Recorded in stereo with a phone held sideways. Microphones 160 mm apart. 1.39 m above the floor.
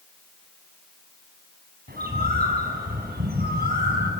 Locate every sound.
1.9 s a bird: 75° right (ahead or behind), 4.5 m